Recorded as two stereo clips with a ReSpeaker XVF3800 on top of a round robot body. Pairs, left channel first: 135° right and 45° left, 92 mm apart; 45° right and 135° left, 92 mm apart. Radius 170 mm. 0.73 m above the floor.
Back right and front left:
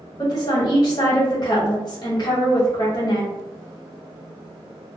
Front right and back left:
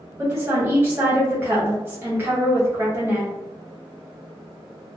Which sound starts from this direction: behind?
A woman speaking, at 0.2 s.